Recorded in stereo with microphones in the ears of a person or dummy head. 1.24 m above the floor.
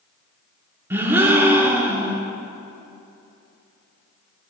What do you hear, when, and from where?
0.9 s a gasp: 15° right (ahead or behind), 0.9 m